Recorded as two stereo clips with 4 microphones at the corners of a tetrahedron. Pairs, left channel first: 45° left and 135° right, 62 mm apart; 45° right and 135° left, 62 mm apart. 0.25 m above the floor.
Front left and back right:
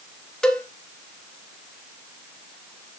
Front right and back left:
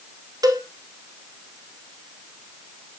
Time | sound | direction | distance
0.4 | a cowbell | 125° left | 1.4 m